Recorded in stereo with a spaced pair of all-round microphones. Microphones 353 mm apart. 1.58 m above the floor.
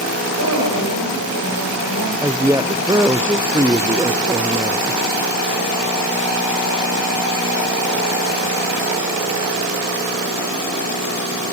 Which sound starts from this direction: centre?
A woman speaking, at 2.2 s.